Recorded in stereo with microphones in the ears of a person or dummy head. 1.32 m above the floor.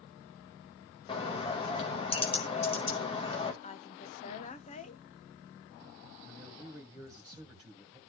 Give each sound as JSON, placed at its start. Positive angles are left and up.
{"t": 1.1, "sound": "a bird", "side_deg": 30, "distance_m": 1.7}
{"t": 3.6, "sound": "a woman speaking", "side_deg": 35, "distance_m": 1.1}
{"t": 6.2, "sound": "a man speaking", "side_deg": 0, "distance_m": 1.6}